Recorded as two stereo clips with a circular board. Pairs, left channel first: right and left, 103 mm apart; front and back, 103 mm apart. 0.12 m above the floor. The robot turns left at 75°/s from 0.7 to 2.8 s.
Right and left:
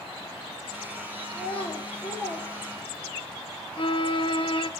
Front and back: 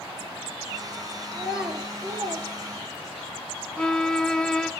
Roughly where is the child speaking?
Right.